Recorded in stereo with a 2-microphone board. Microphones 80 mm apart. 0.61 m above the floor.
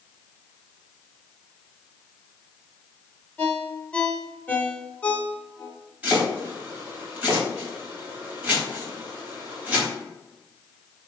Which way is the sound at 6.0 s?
15° right (ahead or behind).